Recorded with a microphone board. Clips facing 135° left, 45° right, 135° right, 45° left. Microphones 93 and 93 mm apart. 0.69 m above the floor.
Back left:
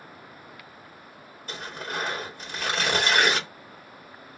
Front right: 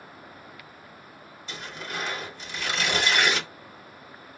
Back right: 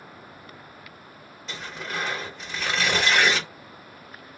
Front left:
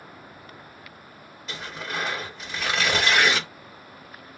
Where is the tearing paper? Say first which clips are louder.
Back left 2 dB, even; 130° left, 1.5 m.